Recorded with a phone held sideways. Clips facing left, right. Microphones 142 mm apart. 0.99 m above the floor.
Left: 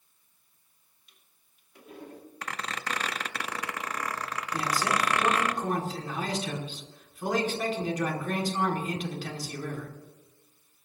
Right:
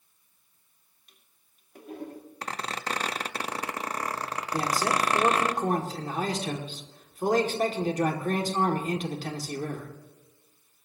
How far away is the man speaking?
About 2 m.